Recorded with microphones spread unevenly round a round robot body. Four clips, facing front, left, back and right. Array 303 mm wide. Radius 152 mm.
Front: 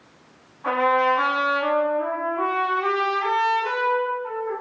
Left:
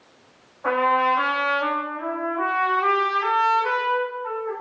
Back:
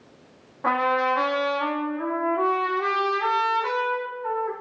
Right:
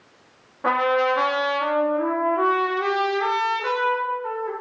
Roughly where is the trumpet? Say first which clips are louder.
Even, front 2 dB; behind right.